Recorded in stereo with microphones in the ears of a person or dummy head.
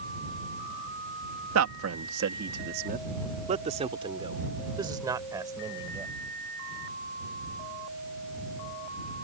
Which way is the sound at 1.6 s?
80° right.